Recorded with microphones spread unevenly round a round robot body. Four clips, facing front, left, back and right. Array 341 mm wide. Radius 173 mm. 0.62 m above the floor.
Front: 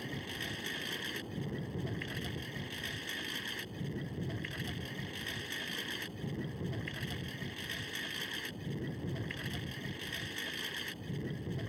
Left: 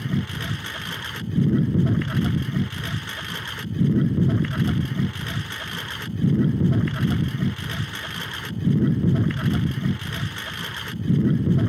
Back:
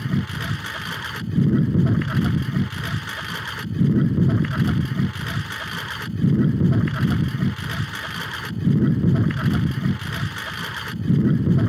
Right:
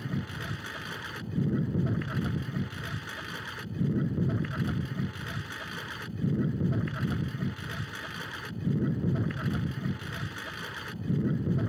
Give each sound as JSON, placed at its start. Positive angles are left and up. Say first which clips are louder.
{"t": 0.0, "sound": "a lawn mower", "louder": "left 8 dB, back 16 dB", "azimuth_deg": 150}